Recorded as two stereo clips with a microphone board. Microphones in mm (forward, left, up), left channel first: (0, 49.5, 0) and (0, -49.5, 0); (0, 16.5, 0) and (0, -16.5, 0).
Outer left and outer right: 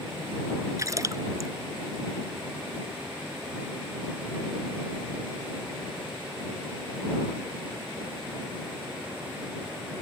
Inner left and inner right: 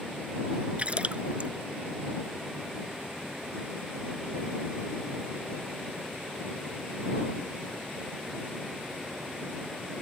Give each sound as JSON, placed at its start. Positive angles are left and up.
{"t": 0.8, "sound": "a splash", "side_deg": -35}